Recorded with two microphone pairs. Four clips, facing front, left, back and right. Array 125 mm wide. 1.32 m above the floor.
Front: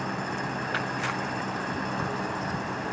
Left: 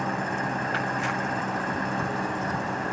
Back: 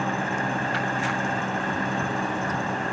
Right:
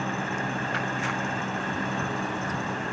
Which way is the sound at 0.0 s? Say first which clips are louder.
Left 2 dB, back 5 dB; 145° left.